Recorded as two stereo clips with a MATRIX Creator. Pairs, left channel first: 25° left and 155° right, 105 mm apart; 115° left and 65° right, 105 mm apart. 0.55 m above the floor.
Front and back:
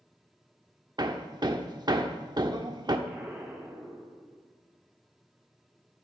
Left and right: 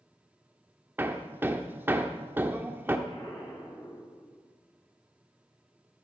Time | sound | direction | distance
1.0 | hammering | 130° right | 1.0 m
3.1 | an explosion | 135° left | 3.5 m